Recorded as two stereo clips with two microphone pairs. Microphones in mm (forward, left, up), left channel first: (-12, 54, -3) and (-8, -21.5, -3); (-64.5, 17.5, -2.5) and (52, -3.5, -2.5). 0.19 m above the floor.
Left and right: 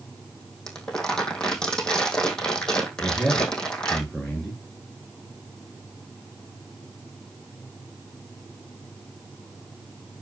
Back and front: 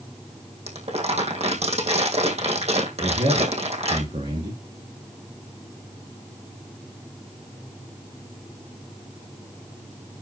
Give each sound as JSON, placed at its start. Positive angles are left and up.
{"t": 0.7, "sound": "crumpling", "azimuth_deg": 15, "distance_m": 3.0}
{"t": 3.0, "sound": "a man speaking", "azimuth_deg": 10, "distance_m": 3.0}